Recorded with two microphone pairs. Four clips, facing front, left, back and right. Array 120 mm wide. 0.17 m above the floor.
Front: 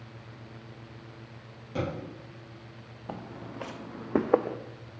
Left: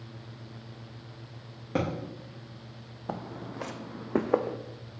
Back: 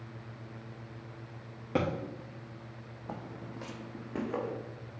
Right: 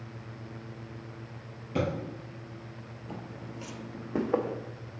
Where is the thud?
135° left, 2.5 m.